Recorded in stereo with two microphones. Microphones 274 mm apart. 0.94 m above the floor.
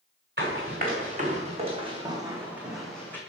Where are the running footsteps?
35° right (ahead or behind), 3 m; by 3.2 s 10° left (ahead or behind), 2 m.